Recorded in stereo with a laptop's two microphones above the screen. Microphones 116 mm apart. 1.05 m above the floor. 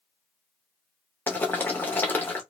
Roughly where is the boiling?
Centre.